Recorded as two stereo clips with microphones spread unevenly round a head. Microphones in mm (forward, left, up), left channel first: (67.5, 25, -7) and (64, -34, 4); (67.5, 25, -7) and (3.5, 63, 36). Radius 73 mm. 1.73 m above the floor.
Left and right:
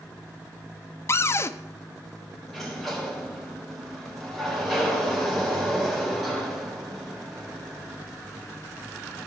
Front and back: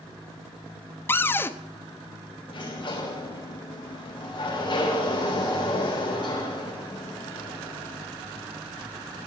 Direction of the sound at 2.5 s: 5° right.